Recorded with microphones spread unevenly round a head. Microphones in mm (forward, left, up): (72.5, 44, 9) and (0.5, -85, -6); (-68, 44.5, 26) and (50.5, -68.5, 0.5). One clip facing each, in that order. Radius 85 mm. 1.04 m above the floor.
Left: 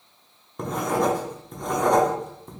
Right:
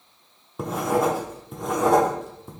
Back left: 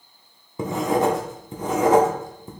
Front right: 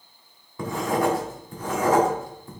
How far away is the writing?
About 0.6 m.